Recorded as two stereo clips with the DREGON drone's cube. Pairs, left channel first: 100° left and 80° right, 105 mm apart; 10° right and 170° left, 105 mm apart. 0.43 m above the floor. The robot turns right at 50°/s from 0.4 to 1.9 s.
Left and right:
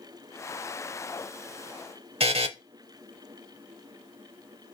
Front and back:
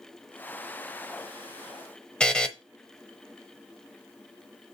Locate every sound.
2.2 s a buzzer: 90° right, 0.9 m